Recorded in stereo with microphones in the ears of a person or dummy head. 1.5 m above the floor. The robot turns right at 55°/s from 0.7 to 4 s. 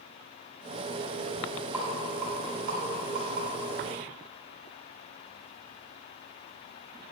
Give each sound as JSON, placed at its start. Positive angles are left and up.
{"t": 1.7, "sound": "a rattle", "side_deg": -10, "distance_m": 2.0}